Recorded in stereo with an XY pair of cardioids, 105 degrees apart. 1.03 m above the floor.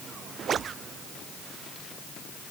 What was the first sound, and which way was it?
Only background noise.